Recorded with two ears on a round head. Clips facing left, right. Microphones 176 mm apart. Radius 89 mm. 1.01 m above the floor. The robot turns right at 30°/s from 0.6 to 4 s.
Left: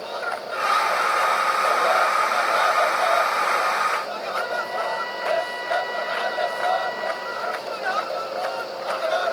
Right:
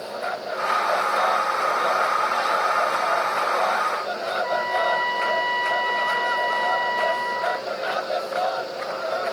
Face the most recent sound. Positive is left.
turn(degrees=-75)  # may be behind; listen again after turning